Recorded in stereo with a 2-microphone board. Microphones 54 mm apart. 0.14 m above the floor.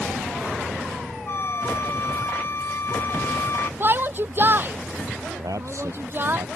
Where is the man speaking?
70° right (ahead or behind).